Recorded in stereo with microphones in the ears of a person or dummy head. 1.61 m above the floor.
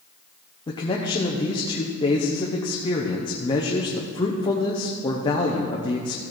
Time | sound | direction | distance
0.7 | a man speaking | 30° left (ahead or behind) | 0.8 m